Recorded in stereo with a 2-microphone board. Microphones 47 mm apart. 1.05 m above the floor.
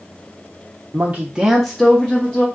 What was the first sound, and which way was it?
A woman speaking, 40° right (ahead or behind).